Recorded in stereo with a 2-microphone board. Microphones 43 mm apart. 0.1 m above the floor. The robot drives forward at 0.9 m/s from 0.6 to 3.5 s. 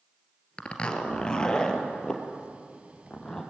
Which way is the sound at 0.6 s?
25° left (ahead or behind).